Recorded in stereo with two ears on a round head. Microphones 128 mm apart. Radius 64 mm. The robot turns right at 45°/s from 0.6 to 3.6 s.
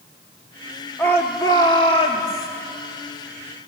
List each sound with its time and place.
1.0 s a shout: 20° left, 1.2 m; by 2.5 s 85° left, 1.2 m